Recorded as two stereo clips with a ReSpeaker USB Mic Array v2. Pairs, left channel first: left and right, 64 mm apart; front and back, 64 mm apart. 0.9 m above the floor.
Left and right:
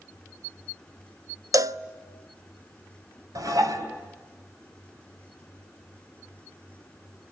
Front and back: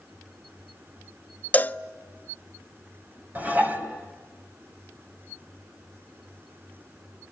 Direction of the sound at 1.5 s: 65° right.